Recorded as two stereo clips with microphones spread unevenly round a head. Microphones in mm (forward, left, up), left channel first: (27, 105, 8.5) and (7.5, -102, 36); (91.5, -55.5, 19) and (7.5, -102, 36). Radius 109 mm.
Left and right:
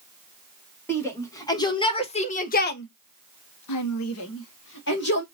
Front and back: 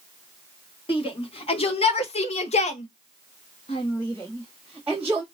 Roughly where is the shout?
Ahead.